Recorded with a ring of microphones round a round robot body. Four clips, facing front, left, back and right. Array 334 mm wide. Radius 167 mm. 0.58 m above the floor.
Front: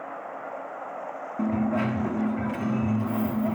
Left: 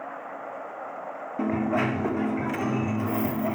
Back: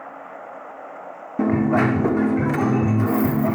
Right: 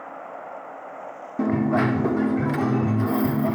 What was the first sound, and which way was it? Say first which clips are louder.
A dropped coin: right 4 dB, back 7 dB; 165° right.